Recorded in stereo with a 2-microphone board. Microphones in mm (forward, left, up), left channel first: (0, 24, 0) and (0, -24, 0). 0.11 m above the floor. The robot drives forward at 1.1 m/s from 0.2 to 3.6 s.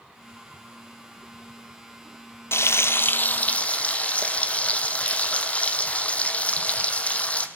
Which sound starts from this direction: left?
Frying, at 2.5 s.